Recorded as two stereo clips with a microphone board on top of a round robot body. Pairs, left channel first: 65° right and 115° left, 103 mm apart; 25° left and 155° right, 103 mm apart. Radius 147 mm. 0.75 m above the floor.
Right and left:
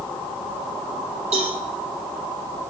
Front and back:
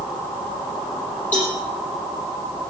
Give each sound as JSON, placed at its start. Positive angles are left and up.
{"t": 1.3, "sound": "a cowbell", "azimuth_deg": 100, "distance_m": 6.5}